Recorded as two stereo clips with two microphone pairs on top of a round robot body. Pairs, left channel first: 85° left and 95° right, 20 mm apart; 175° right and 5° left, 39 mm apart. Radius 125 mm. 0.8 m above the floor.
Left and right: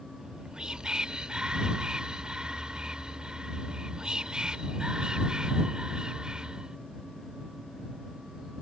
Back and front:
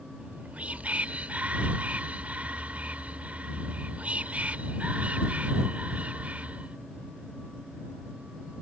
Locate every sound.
0.2 s whispering: 50° right